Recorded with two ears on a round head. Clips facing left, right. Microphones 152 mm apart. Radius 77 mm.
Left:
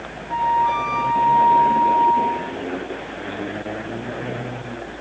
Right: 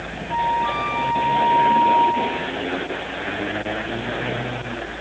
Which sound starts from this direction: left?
A flute, at 0.3 s.